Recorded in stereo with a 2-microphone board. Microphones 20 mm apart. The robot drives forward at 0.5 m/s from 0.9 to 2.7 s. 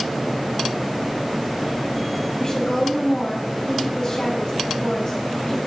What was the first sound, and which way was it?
A woman speaking, 40° left (ahead or behind).